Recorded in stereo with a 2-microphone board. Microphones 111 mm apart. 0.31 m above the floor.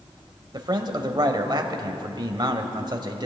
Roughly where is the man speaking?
Right.